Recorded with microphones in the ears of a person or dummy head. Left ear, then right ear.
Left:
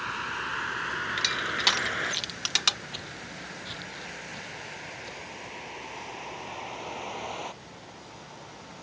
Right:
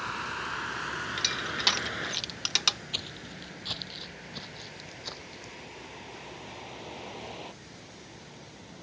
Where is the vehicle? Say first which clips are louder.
Left 2 dB; 15° left (ahead or behind); by 8.8 s 55° left (ahead or behind).